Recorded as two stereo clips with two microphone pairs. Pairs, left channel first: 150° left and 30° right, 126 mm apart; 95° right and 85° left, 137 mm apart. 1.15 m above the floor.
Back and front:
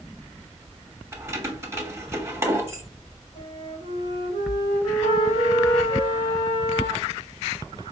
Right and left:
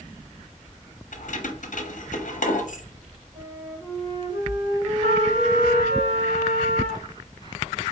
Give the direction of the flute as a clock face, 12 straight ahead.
8 o'clock.